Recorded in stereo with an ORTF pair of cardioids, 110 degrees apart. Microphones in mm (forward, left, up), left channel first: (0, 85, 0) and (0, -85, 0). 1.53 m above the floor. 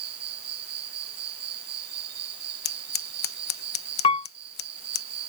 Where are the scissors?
65° left.